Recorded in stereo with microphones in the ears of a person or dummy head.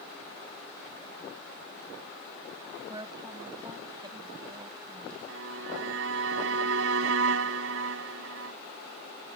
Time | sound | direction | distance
2.9 | a woman speaking | 25° right (ahead or behind) | ?
5.3 | a violin | 85° right | ?